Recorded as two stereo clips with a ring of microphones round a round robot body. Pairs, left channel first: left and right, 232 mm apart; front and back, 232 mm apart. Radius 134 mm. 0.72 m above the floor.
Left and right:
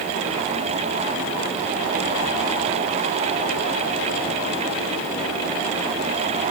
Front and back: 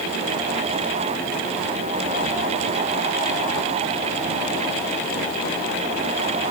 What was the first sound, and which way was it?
Only background noise.